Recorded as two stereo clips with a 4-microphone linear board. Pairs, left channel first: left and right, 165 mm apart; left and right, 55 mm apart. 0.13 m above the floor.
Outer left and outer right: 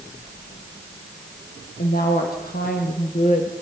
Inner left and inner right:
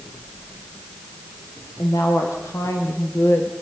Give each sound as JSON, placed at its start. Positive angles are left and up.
{"t": 1.8, "sound": "a woman speaking", "side_deg": 70, "distance_m": 4.0}